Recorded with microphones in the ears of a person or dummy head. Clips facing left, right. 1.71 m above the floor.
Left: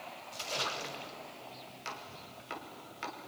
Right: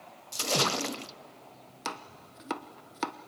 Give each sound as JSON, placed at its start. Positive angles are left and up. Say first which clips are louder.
{"t": 0.3, "sound": "a splash", "louder": "right 10 dB", "side_deg": -70, "distance_m": 0.6}
{"t": 1.9, "sound": "chopping", "louder": "right 8 dB", "side_deg": -55, "distance_m": 0.9}